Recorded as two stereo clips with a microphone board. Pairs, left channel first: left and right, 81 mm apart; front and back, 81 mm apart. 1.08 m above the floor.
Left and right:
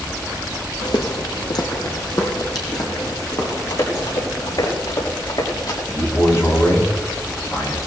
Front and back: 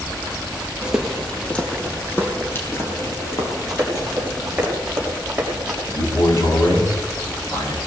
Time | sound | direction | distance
0.8 | footsteps | 100° left | 2 m
3.7 | running footsteps | 90° left | 7 m
5.9 | a man speaking | 40° left | 7 m